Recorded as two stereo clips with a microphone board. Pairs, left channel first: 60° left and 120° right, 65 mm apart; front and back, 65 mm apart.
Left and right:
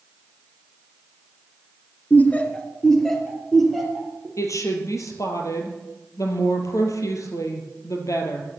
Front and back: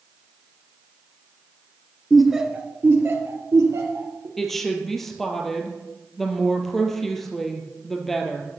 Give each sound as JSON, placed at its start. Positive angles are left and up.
{"t": 2.1, "sound": "laughter", "azimuth_deg": 80, "distance_m": 1.5}
{"t": 4.4, "sound": "a woman speaking", "azimuth_deg": 85, "distance_m": 2.5}